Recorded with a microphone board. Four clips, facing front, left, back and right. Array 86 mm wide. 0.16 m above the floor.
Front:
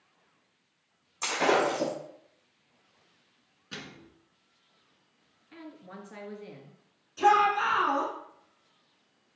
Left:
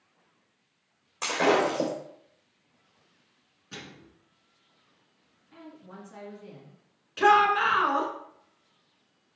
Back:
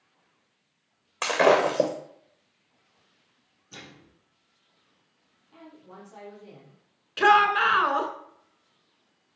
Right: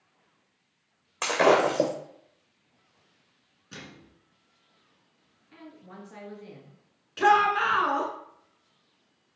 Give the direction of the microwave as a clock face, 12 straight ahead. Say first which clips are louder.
Left 1 dB, front 3 dB; 12 o'clock.